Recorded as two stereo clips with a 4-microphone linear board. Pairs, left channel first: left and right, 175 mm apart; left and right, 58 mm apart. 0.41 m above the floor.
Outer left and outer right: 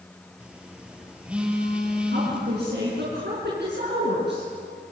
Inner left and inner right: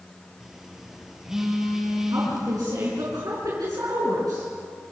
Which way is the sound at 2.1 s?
75° right (ahead or behind).